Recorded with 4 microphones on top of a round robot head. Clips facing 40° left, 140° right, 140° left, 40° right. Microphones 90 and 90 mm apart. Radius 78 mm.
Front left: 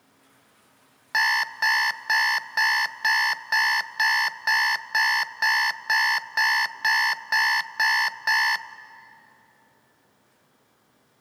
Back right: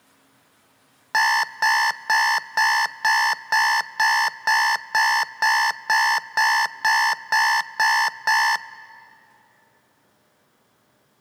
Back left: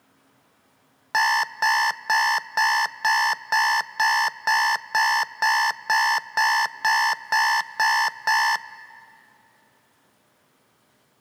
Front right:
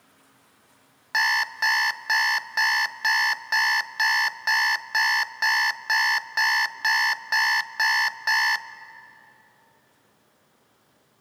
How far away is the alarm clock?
About 0.5 m.